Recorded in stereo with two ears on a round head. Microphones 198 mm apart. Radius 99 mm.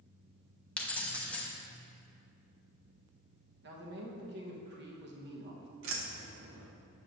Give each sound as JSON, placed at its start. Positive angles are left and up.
{"t": 0.8, "sound": "keys jangling", "side_deg": 5, "distance_m": 0.7}
{"t": 3.6, "sound": "a man speaking", "side_deg": -55, "distance_m": 1.1}
{"t": 5.8, "sound": "keys jangling", "side_deg": -60, "distance_m": 0.8}